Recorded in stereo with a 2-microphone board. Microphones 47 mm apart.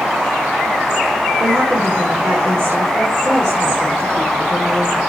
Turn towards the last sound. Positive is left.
turn(degrees=-65)  # may be behind; listen again after turning